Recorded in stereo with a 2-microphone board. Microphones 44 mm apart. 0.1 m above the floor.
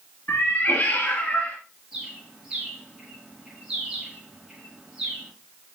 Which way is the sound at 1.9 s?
10° right (ahead or behind).